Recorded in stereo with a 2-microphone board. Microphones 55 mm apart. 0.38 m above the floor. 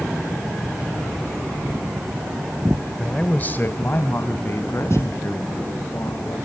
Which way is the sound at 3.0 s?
10° left (ahead or behind).